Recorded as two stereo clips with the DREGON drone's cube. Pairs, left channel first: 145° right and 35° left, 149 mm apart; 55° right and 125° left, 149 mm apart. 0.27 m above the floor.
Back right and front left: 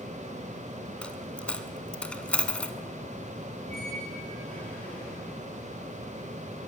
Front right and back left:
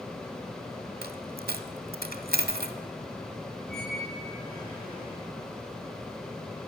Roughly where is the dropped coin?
Behind left.